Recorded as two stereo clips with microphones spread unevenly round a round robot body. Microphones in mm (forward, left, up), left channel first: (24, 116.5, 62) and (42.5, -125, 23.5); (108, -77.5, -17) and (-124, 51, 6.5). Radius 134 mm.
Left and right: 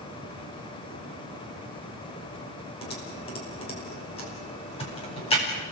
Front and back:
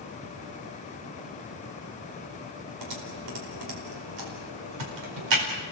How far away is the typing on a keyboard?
About 4.5 m.